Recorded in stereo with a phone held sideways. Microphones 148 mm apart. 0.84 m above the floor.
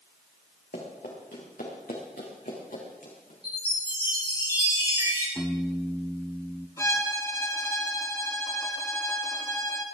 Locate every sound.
0.7 s running footsteps: 80° left, 5 m; by 3.3 s 60° left (ahead or behind), 4.5 m
3.4 s a chime: 40° right (ahead or behind), 7 m
5.4 s a piano: 5° left (ahead or behind), 1.8 m
6.8 s a violin: 20° left (ahead or behind), 1.5 m